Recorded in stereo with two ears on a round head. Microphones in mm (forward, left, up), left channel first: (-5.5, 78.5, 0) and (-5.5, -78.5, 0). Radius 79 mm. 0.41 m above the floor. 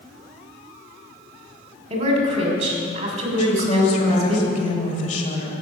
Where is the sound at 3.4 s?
40° left (ahead or behind), 1.8 m.